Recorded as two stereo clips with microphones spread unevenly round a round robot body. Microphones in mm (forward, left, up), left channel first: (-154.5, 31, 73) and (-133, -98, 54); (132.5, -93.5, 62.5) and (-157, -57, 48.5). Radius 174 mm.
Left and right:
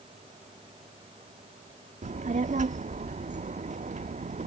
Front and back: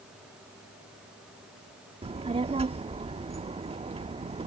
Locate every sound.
2.0 s a child speaking: 115° right